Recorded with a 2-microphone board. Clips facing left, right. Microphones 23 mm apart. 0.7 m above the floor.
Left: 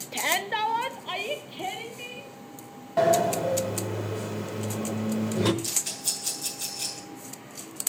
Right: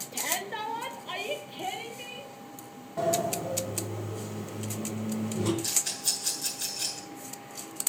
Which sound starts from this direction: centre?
A rattle, at 5.6 s.